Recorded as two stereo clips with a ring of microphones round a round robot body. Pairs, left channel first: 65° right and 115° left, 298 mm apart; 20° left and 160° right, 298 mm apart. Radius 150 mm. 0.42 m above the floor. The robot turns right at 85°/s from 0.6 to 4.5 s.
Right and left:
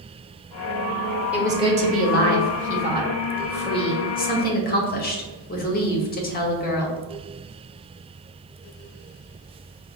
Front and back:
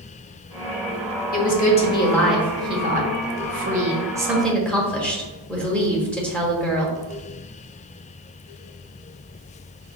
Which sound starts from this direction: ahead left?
A woman speaking, at 1.3 s.